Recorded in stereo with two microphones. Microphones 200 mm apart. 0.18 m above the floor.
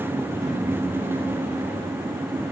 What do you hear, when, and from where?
Only background noise.